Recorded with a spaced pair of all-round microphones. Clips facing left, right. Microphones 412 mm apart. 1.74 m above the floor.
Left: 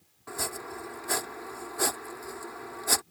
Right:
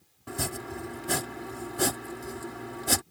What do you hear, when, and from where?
0.3 s chopping: 45° right (ahead or behind)